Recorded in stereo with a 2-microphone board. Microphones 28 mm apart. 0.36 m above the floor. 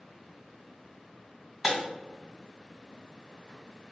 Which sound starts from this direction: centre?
Breaking glass, at 1.6 s.